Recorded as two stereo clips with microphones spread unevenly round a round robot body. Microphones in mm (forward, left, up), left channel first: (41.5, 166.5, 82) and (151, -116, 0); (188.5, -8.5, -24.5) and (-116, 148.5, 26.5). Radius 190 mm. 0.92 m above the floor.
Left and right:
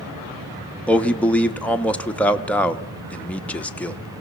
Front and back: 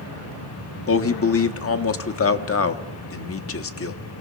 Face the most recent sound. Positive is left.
turn(degrees=20)